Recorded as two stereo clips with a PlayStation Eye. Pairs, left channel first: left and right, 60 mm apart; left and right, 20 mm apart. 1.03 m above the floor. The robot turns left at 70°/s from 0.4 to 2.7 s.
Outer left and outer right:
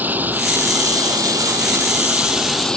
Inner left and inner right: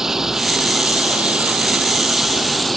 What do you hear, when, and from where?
0.0 s running water: 30° right; by 2.8 s 170° left